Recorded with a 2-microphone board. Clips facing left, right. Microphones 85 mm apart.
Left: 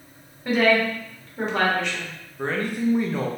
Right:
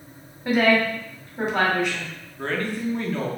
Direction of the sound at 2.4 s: 15° left (ahead or behind).